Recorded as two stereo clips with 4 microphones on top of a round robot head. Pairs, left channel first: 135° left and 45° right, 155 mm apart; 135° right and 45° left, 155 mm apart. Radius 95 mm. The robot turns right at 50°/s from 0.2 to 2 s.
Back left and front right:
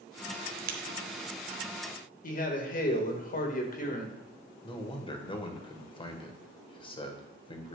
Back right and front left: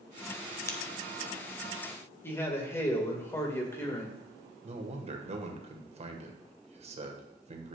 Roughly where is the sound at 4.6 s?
Left.